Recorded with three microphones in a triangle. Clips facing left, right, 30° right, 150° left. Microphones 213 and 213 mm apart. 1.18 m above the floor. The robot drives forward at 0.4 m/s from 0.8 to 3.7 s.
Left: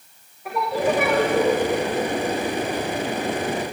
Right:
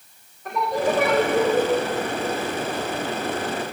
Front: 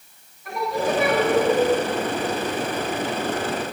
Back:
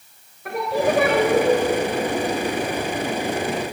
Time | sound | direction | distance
0.5 | singing | 170° left | 1.6 m